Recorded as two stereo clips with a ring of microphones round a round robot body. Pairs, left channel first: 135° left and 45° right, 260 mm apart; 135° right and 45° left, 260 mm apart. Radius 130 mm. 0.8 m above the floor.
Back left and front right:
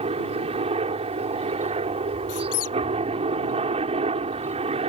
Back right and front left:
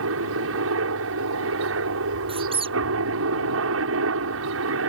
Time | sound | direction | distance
0.0 | a helicopter | 20° left | ?
2.3 | a squeak | 115° left | ?